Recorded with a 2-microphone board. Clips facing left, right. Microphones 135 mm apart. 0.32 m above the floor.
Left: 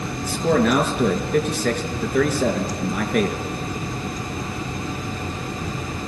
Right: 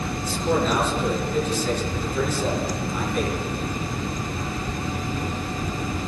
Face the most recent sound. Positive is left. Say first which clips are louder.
# left 4 dB
turn(degrees=70)  # may be behind; listen again after turning